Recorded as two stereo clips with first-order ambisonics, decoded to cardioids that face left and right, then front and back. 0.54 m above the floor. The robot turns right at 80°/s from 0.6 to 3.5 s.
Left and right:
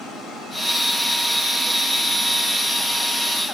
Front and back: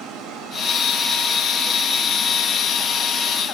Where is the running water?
145° left, 1.5 m; by 3.5 s 20° left, 1.5 m.